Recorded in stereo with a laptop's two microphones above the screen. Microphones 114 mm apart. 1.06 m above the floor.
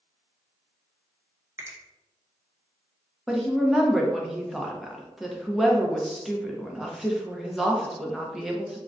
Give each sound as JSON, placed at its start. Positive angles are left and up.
{"t": 1.6, "sound": "a finger snap", "side_deg": -25, "distance_m": 0.7}
{"t": 3.3, "sound": "a woman speaking", "side_deg": 0, "distance_m": 0.7}